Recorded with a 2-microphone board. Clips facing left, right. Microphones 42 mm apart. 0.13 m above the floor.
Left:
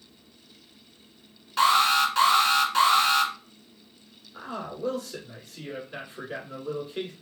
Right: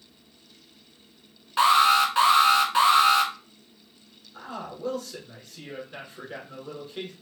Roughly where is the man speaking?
Centre.